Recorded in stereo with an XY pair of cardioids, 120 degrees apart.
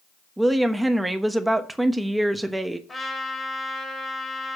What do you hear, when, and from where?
0.4 s a woman speaking: 10° right, 1.1 m
2.9 s a trumpet: 20° left, 2.5 m